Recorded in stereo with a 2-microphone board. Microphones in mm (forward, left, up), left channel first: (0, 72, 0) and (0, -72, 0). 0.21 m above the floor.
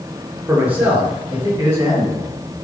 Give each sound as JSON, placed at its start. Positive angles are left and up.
{"t": 0.5, "sound": "a man speaking", "side_deg": -10, "distance_m": 4.0}